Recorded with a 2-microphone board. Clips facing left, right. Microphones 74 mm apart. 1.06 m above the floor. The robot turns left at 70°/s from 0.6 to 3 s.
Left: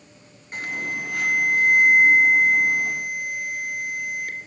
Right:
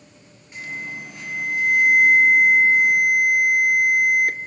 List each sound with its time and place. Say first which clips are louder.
0.5 s an alarm: left 4 dB; 125° left, 2.5 m; by 4.5 s 40° right, 2.5 m